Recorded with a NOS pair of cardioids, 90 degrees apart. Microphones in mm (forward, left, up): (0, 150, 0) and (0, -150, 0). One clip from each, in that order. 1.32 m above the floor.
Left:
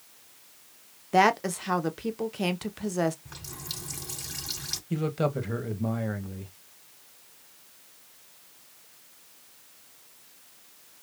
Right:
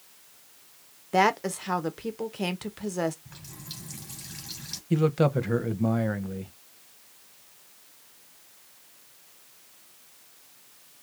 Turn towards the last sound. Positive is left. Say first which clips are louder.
# right 5 dB
turn(degrees=-25)